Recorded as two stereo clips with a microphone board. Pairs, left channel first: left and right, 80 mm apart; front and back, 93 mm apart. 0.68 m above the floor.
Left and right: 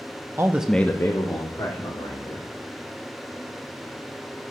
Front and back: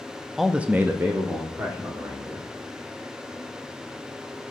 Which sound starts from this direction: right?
A man speaking, at 0.4 s.